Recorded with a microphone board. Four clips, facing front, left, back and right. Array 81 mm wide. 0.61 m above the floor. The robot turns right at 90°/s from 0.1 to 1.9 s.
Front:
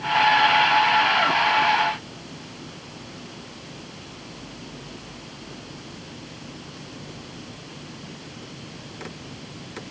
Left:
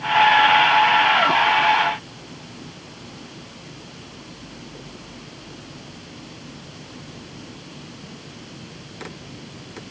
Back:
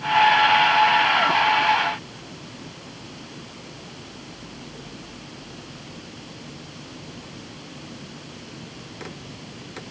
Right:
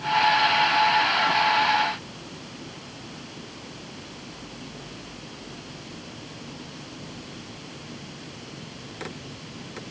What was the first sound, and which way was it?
Only background noise.